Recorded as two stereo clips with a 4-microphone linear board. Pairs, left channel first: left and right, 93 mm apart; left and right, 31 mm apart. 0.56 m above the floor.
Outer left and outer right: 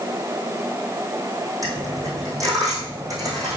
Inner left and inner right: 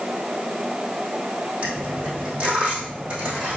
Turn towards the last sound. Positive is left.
turn(degrees=-35)  # may be behind; listen again after turning